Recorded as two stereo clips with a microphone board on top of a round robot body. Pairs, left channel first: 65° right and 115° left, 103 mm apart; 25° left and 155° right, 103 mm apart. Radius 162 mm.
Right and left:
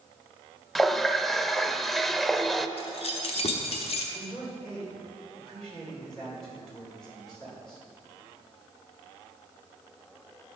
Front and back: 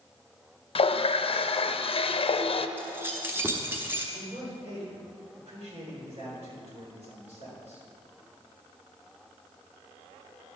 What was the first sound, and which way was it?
A running tap, 20° left.